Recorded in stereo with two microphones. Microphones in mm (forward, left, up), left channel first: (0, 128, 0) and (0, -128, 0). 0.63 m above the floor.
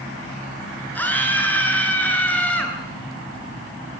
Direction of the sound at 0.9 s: 5° left (ahead or behind).